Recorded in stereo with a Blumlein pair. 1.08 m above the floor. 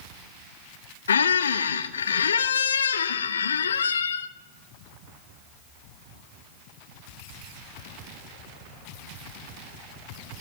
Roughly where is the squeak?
Left.